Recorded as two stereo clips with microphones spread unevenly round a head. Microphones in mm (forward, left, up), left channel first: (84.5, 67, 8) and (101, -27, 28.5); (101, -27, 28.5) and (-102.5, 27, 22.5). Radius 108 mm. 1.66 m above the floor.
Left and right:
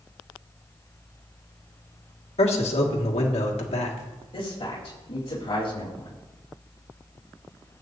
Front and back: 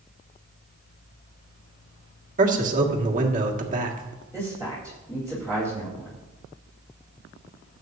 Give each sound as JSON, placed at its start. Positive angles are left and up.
{"t": 2.4, "sound": "a man speaking", "azimuth_deg": 110, "distance_m": 1.9}
{"t": 4.3, "sound": "a man speaking", "azimuth_deg": 65, "distance_m": 4.0}